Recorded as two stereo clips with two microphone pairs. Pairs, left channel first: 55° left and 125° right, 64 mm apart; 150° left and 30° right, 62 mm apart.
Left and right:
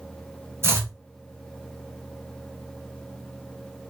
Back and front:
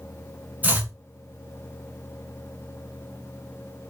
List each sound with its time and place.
0.6 s chopping: 90° right, 0.8 m